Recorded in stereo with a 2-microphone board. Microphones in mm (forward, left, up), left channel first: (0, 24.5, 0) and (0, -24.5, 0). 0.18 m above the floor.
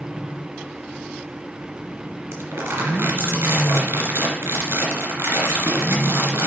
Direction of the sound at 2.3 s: 60° right (ahead or behind).